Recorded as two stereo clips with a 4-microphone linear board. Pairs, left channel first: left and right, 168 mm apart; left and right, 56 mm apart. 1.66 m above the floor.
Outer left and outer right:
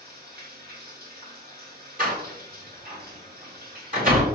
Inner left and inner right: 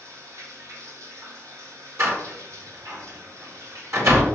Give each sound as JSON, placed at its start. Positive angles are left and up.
{"t": 0.0, "sound": "running water", "side_deg": -65, "distance_m": 3.0}
{"t": 2.0, "sound": "a door slam", "side_deg": -55, "distance_m": 3.5}